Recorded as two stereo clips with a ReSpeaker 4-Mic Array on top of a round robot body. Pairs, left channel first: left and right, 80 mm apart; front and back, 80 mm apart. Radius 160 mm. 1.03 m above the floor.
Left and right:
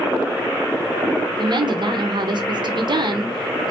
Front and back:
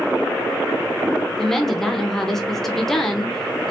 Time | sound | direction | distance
1.3 | a woman speaking | 85° right | 0.8 m